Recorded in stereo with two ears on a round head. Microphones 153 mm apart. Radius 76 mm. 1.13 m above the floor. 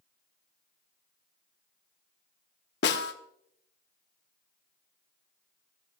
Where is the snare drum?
65° left (ahead or behind), 1.2 m.